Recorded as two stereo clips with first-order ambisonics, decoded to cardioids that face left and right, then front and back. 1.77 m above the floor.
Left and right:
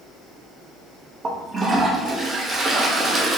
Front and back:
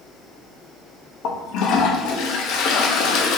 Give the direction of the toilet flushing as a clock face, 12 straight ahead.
1 o'clock.